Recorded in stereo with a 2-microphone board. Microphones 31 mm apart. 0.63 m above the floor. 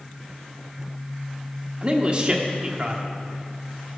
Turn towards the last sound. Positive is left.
turn(degrees=-30)  # may be behind; listen again after turning